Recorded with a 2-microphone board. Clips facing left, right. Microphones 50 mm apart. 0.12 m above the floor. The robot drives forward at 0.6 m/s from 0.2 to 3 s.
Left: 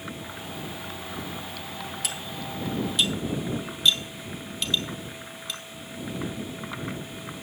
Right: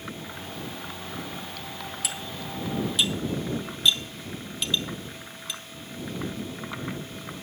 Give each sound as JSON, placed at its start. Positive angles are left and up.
{"t": 2.0, "sound": "cutlery clinking", "side_deg": 0, "distance_m": 1.2}